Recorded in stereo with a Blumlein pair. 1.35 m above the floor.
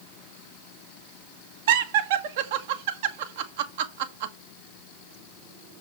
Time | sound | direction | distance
1.7 | laughter | 55° right | 1.3 m